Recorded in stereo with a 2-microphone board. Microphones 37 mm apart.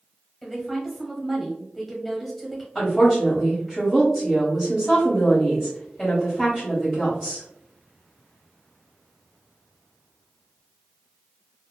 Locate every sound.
0.4 s a woman speaking: centre (ahead or behind), 1.1 m
2.8 s a woman speaking: 5° left (ahead or behind), 1.3 m